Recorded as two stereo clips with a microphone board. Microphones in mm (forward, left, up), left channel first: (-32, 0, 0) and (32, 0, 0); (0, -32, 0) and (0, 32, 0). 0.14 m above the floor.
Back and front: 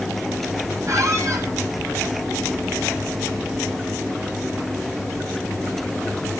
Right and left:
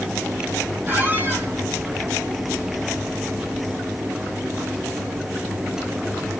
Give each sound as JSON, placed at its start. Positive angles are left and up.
{"t": 0.9, "sound": "a squeak", "azimuth_deg": 35, "distance_m": 2.5}